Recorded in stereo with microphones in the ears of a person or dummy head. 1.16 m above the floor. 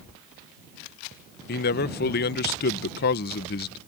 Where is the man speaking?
50° left (ahead or behind).